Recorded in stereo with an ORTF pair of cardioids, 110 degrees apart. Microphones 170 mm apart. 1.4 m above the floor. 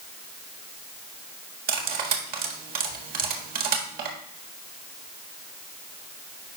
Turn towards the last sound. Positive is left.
turn(degrees=-70)